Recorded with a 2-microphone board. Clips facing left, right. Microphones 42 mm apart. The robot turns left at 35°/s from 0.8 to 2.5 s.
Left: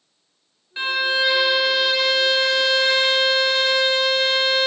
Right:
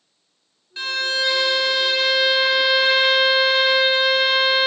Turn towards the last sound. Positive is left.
turn(degrees=-20)